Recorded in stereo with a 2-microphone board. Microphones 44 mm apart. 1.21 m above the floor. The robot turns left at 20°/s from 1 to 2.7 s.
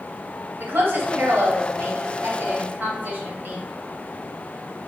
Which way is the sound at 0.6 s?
50° right (ahead or behind).